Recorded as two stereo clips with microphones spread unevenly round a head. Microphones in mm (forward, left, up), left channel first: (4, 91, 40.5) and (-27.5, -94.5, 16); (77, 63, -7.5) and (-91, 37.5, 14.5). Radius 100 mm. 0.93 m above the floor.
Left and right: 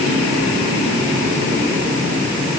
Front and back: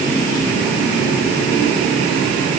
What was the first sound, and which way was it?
Only background noise.